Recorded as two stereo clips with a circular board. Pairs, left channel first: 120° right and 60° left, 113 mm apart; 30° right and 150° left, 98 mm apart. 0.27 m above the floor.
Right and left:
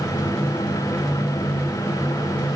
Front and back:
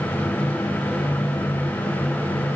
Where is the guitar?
No guitar in this recording.